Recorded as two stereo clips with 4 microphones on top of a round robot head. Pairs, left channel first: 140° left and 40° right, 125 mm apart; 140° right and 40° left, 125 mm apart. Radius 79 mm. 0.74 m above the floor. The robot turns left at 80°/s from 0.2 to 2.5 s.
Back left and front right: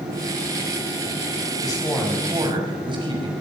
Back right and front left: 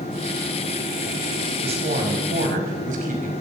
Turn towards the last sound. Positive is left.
turn(degrees=15)